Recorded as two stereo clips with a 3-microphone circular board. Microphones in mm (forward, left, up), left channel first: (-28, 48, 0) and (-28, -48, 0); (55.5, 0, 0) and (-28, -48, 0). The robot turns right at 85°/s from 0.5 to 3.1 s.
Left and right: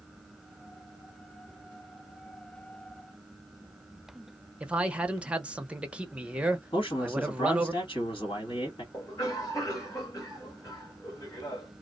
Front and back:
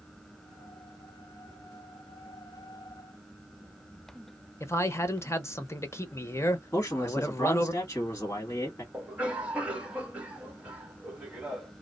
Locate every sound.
4.6 s a man speaking: 15° right, 0.6 m
6.7 s a man speaking: 90° left, 1.5 m
8.9 s a cough: 135° left, 1.6 m